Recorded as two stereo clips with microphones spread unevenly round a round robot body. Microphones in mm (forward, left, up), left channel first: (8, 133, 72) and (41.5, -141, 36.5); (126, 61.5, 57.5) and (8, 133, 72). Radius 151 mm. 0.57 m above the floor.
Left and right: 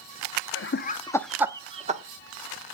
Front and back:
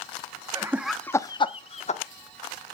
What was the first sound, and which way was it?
Laughter, 90° left.